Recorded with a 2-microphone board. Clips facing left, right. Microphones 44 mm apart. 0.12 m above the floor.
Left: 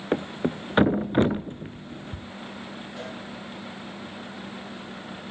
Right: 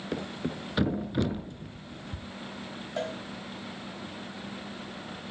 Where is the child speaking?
No child speaking in this recording.